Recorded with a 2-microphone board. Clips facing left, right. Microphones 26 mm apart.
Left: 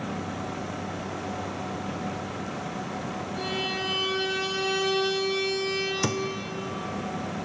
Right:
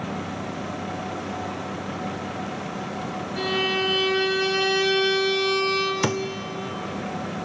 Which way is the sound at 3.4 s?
70° right (ahead or behind).